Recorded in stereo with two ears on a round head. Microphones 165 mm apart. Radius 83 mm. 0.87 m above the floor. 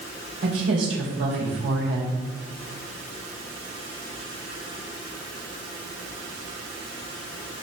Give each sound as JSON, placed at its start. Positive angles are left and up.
{"t": 0.4, "sound": "a woman speaking", "side_deg": -75, "distance_m": 3.0}